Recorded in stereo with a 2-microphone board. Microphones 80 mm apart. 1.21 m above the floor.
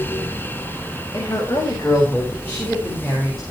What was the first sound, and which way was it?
A woman speaking, 40° left (ahead or behind).